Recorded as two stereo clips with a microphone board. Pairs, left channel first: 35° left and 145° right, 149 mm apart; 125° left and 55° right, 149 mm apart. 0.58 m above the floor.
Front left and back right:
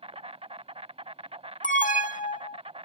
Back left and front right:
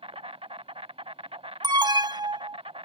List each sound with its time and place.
0.0 s an insect: 100° right
1.6 s an alarm: 5° left